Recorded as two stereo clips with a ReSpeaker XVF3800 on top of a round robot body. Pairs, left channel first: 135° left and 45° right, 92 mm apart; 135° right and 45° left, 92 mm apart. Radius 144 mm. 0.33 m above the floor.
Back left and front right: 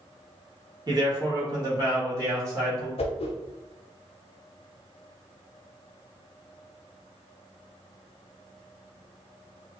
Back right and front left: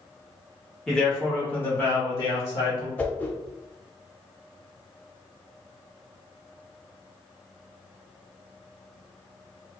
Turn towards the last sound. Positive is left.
turn(degrees=150)